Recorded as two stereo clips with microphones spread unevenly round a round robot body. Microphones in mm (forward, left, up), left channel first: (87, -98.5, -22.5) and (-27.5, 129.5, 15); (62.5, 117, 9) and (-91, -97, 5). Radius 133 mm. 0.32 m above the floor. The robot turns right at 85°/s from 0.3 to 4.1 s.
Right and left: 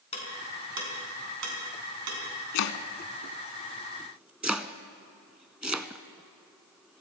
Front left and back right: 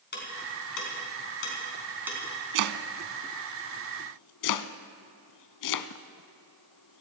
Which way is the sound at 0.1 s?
Straight ahead.